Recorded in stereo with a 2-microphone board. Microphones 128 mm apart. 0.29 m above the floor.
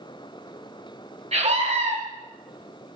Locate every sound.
1.3 s a scream: 60° right (ahead or behind), 2.5 m